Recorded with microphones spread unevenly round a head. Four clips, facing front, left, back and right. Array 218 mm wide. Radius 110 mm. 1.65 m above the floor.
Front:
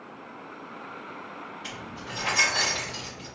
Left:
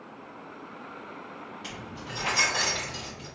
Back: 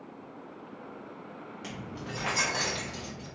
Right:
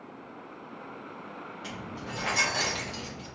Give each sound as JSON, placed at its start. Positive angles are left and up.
{"t": 1.6, "sound": "keys jangling", "azimuth_deg": 180, "distance_m": 1.0}